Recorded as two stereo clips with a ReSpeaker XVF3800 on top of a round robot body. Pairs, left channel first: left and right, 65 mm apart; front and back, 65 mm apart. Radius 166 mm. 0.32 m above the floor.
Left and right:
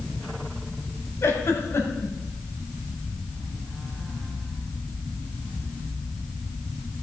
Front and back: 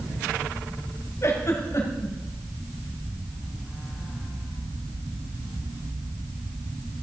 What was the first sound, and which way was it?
A giggle, 45° left.